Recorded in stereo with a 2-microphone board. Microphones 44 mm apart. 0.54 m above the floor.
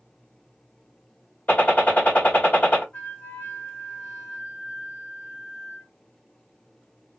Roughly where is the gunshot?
Left.